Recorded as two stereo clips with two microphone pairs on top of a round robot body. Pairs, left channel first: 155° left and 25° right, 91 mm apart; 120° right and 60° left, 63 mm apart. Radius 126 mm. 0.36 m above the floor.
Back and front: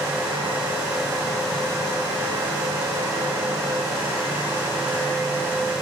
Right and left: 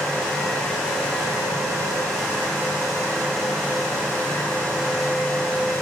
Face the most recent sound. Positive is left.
No sound to turn to.